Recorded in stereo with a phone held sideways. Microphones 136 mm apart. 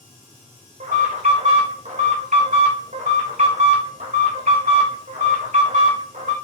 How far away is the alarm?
About 3 m.